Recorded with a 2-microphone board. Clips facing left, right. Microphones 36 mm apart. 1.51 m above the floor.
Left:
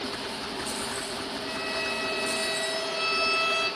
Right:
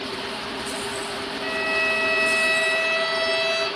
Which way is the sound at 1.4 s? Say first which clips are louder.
Right 10 dB; 70° right (ahead or behind).